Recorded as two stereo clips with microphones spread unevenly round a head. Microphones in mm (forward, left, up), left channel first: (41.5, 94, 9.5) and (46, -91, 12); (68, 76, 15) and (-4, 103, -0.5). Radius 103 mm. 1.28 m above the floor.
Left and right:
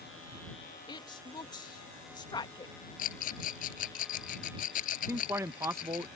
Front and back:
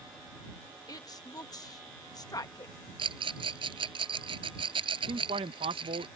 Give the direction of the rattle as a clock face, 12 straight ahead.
7 o'clock.